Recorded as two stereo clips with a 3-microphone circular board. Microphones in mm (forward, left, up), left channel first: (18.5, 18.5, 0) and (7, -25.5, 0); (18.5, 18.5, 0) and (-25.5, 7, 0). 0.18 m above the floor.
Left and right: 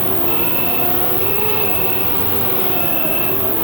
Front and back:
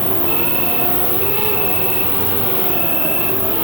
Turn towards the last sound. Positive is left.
turn(degrees=100)